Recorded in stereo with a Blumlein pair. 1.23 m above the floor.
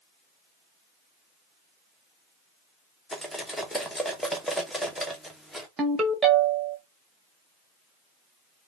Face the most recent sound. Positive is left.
turn(degrees=-15)